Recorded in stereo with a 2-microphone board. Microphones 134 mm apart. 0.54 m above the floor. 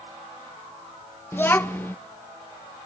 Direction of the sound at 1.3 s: 15° left (ahead or behind).